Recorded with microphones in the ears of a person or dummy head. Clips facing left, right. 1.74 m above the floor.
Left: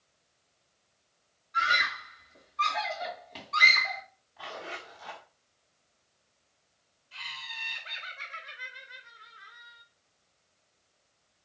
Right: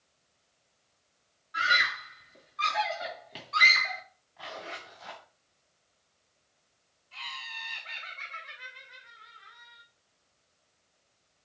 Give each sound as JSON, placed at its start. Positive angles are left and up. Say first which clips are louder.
{"t": 1.5, "sound": "a scream", "louder": "even", "side_deg": -10, "distance_m": 3.0}
{"t": 4.4, "sound": "a zipper", "louder": "left 1 dB", "side_deg": 0, "distance_m": 5.5}
{"t": 7.1, "sound": "laughter", "louder": "right 2 dB", "side_deg": 15, "distance_m": 3.5}